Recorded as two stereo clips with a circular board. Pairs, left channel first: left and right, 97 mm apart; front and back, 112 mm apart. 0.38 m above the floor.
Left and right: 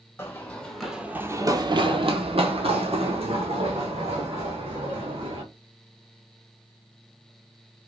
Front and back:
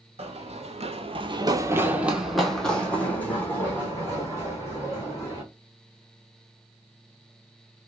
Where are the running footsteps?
155° left, 0.8 m; by 5.4 s 65° right, 2.5 m.